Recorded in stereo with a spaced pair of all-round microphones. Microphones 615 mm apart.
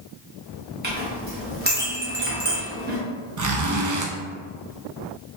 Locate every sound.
0.8 s a clink: 15° right (ahead or behind), 1.0 m
3.4 s a zipper: 30° right (ahead or behind), 0.5 m